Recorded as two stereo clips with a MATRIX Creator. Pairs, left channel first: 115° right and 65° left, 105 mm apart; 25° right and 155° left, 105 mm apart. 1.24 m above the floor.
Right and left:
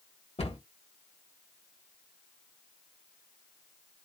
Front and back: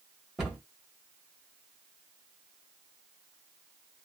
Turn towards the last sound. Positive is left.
turn(degrees=-120)